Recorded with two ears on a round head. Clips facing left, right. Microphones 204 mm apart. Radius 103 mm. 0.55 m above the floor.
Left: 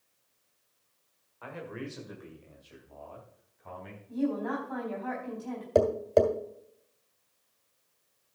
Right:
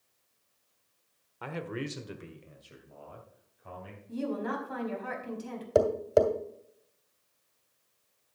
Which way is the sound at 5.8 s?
5° right (ahead or behind).